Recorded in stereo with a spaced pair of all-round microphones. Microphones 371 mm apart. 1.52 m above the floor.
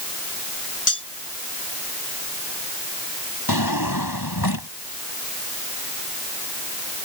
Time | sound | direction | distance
0.9 | cutlery clinking | 60° left (ahead or behind) | ?
3.5 | a drawer | 80° left | ?